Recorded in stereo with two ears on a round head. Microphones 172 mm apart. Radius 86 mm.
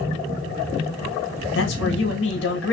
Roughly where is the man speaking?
Left.